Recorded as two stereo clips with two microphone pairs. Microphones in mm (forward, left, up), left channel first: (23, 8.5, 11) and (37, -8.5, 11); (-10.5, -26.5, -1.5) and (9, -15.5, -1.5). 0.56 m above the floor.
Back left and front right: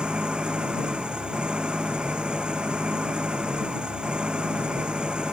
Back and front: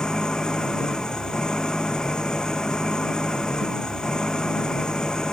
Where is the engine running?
95° right.